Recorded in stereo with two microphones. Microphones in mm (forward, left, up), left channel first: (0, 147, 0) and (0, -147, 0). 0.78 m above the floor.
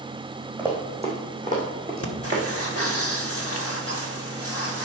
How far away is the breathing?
About 1.5 m.